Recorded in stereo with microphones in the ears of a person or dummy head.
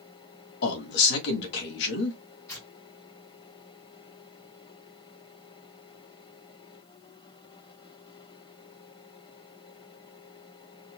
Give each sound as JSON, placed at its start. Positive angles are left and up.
{"t": 0.6, "sound": "a man speaking", "side_deg": 65, "distance_m": 1.9}
{"t": 2.5, "sound": "tearing paper", "side_deg": 15, "distance_m": 3.0}